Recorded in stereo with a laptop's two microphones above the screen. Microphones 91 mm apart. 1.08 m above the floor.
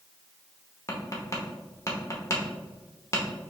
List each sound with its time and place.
0.9 s tapping: 35° left (ahead or behind), 0.8 m